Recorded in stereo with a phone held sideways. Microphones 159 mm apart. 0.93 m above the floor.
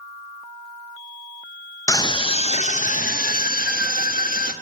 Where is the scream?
20° left (ahead or behind), 0.8 m; by 4.5 s 65° left (ahead or behind), 1.5 m.